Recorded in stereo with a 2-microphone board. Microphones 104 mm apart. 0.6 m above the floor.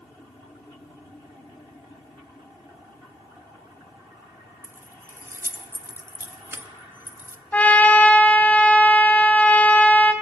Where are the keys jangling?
20° right (ahead or behind), 0.5 m.